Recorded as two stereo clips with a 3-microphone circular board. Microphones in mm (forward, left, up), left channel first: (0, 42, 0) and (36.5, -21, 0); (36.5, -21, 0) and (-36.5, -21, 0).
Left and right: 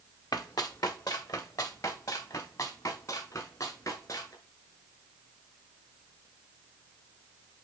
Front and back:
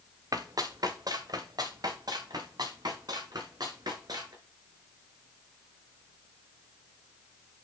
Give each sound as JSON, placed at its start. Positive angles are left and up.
{"t": 0.3, "sound": "running footsteps", "azimuth_deg": 145, "distance_m": 1.4}